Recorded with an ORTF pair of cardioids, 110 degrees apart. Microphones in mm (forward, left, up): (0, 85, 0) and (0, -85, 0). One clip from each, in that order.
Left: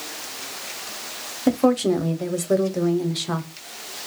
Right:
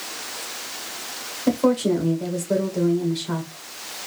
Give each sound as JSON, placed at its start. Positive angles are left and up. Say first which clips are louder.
{"t": 1.5, "sound": "a woman speaking", "louder": "left 1 dB", "azimuth_deg": 25, "distance_m": 0.6}